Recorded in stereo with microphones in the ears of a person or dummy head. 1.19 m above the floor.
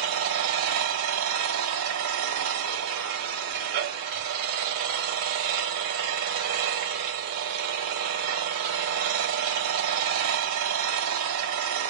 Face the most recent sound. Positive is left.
turn(degrees=-85)